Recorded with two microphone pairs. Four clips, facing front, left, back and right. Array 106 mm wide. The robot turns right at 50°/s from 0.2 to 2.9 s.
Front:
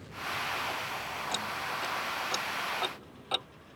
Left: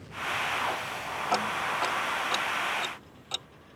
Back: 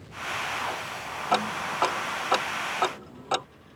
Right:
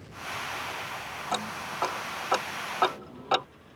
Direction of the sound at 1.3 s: 160° left.